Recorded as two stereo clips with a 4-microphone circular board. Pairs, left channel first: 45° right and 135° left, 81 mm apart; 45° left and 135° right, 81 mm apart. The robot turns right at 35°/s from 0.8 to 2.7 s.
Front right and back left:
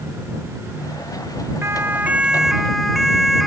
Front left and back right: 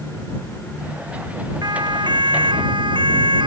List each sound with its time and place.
1.6 s a siren: 170° right; by 3.5 s 135° right